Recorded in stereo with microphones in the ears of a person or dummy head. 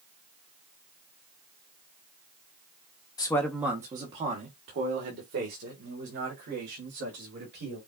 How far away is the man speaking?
About 0.6 m.